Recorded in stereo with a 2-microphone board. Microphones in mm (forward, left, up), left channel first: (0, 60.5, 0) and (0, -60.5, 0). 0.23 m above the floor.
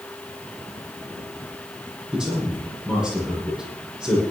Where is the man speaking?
5° right (ahead or behind), 9.5 m.